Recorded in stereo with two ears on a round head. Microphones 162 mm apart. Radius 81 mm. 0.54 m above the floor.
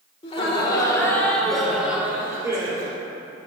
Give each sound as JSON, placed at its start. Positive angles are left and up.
{"t": 0.2, "sound": "laughter", "side_deg": 35, "distance_m": 2.0}